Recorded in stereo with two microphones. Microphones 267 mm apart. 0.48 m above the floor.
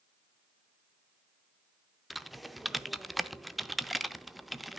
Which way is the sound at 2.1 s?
Centre (ahead or behind).